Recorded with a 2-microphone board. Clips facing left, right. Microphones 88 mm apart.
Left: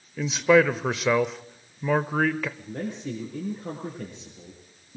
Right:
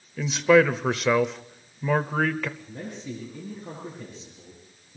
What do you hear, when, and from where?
0.2 s a man speaking: centre (ahead or behind), 0.9 m
2.6 s a man speaking: 65° left (ahead or behind), 7.5 m